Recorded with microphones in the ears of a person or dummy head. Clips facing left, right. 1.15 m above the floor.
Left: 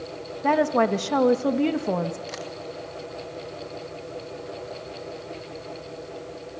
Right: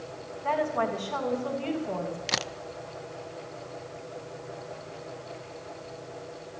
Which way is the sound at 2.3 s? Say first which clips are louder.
Even; 70° right (ahead or behind).